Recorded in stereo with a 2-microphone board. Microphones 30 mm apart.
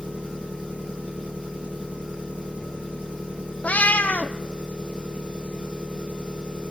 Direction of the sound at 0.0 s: 50° right (ahead or behind).